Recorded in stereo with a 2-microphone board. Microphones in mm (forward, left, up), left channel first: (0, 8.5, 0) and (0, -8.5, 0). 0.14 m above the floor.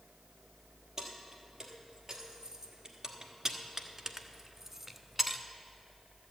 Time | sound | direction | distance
1.0 | keys jangling | 35° right (ahead or behind) | 2.5 m